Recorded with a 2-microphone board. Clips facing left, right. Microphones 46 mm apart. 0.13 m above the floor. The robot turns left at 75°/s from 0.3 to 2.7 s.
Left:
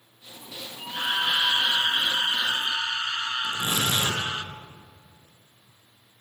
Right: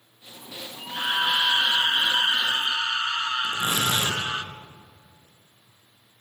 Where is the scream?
15° left, 1.4 m; by 4.4 s 130° right, 1.4 m.